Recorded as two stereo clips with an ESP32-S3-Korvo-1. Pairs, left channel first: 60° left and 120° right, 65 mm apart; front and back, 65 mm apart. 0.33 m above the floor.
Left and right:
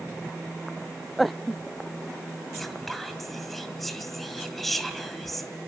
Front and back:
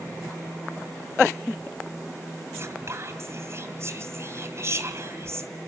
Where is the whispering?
145° left, 2 m.